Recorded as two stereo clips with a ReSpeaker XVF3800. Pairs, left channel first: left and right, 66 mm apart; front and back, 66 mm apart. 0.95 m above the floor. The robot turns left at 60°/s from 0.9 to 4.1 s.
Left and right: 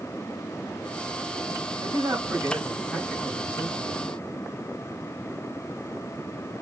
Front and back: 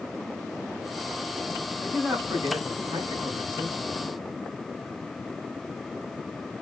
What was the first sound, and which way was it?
A man speaking, 105° right.